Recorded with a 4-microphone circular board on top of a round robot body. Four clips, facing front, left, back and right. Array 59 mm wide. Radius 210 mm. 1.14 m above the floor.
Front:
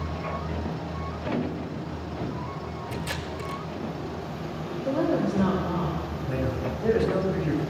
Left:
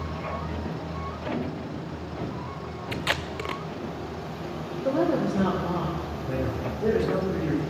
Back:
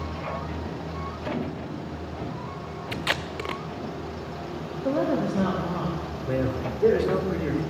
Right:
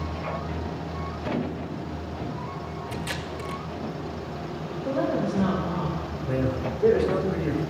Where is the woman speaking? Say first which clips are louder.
Left 2 dB, even; 145° left, 3 m.